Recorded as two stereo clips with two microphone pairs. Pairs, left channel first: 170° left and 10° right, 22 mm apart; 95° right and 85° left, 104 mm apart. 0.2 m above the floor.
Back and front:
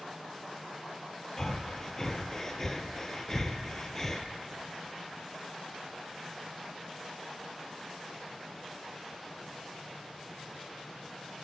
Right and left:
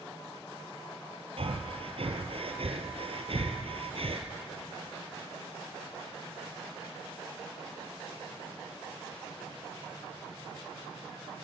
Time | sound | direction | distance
1.4 | breathing | 105° left | 1.7 m